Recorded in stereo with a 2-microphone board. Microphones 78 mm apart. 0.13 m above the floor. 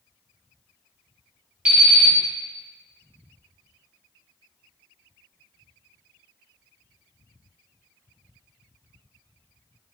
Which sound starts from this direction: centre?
An alarm clock, at 1.6 s.